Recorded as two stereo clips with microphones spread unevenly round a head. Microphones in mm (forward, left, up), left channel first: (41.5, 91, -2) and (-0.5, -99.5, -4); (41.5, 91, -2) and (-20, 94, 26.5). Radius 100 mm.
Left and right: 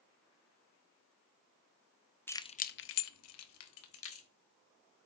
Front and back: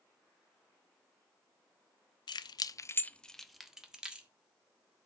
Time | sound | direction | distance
2.3 | keys jangling | straight ahead | 0.6 m